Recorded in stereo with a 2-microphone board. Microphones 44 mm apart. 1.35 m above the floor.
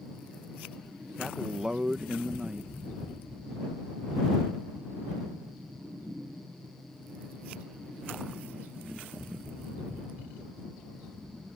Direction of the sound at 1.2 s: 15° right (ahead or behind).